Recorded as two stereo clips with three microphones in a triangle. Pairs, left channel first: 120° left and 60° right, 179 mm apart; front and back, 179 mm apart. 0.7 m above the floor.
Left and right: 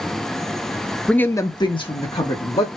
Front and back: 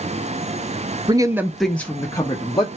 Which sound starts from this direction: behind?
A woman speaking, at 1.1 s.